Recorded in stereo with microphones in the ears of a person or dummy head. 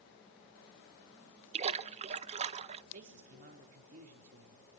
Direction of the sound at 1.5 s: 30° right (ahead or behind).